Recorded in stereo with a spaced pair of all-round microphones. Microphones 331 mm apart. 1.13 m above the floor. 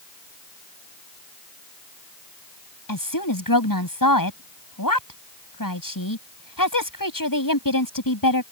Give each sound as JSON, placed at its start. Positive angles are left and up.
{"t": 2.9, "sound": "a woman speaking", "side_deg": 85}